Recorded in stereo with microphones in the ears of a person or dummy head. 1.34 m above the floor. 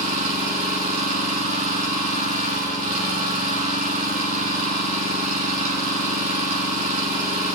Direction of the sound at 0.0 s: 45° right (ahead or behind).